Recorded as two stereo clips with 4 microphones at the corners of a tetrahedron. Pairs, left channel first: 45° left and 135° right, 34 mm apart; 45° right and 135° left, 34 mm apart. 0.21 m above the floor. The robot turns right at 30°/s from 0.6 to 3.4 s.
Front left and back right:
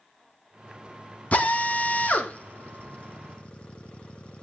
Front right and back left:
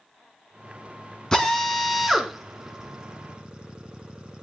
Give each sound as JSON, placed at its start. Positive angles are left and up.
{"t": 1.3, "sound": "a drill", "azimuth_deg": 20, "distance_m": 2.0}